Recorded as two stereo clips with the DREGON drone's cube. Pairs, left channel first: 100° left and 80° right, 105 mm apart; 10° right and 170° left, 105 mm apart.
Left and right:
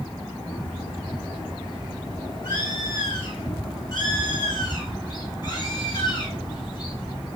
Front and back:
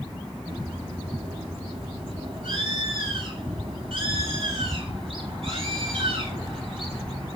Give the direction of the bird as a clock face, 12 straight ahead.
7 o'clock.